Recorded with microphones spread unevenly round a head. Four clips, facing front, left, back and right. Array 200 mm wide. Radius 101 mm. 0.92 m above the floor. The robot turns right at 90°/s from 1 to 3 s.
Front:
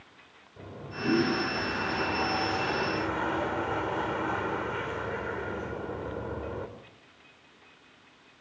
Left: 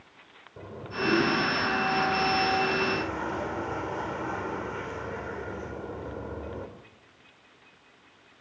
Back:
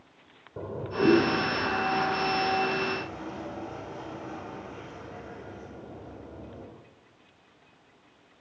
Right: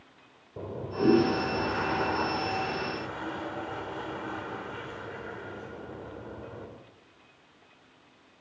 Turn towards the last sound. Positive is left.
turn(degrees=25)